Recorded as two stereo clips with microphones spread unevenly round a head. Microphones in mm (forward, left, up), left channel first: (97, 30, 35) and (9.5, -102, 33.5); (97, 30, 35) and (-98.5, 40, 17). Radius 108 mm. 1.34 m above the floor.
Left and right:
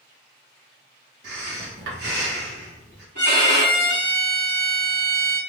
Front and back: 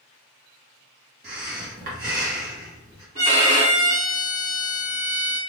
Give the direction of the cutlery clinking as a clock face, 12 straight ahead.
No cutlery clinking in this recording.